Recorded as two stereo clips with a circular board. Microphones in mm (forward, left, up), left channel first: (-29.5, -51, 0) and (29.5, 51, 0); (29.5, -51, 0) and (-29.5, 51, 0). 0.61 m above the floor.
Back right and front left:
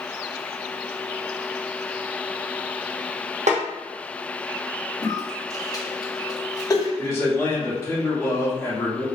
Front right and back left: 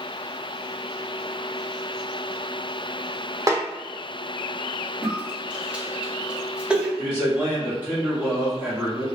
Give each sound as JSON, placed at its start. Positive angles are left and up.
{"t": 3.5, "sound": "a snare drum", "azimuth_deg": 60, "distance_m": 0.6}
{"t": 5.0, "sound": "a cough", "azimuth_deg": -165, "distance_m": 0.8}
{"t": 7.0, "sound": "a man speaking", "azimuth_deg": -175, "distance_m": 1.5}